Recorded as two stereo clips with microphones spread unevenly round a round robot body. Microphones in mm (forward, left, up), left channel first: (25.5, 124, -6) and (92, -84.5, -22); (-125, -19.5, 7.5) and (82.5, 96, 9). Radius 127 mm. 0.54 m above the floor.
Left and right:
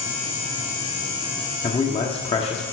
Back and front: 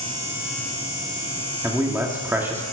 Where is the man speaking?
95° left, 1.3 m.